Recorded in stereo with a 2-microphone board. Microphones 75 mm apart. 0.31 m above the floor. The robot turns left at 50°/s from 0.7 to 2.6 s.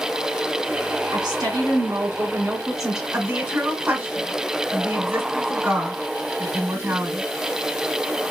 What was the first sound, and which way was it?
A woman speaking, 100° right.